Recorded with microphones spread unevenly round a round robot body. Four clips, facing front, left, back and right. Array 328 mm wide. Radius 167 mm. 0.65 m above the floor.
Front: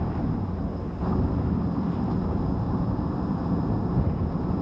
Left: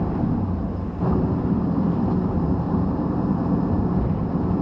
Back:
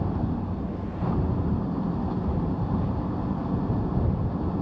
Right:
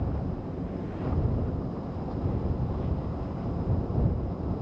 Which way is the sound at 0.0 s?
90° left.